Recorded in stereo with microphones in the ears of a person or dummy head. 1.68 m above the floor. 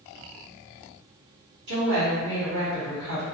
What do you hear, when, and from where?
1.7 s a woman speaking: 65° right (ahead or behind), 1.4 m